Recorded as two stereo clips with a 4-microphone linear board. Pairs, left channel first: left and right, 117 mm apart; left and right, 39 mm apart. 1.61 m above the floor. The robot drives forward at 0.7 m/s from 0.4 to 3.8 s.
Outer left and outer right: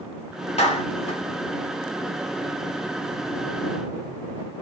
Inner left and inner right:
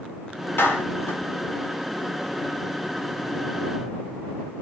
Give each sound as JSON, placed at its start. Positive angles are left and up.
{"t": 0.6, "sound": "a clap", "side_deg": 65, "distance_m": 3.0}